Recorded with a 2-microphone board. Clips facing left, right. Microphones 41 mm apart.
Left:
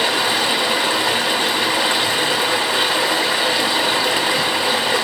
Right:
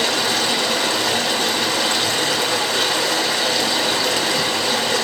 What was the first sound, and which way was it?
Running water, 15° left (ahead or behind).